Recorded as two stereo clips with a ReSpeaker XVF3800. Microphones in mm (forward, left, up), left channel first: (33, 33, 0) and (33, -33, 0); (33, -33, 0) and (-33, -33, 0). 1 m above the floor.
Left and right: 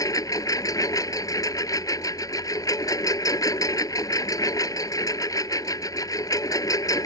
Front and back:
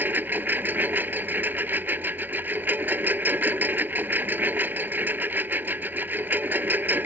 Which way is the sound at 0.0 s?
120° left.